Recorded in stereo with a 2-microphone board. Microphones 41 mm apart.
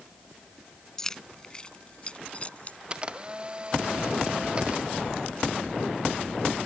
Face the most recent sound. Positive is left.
turn(degrees=-25)  # may be behind; listen again after turning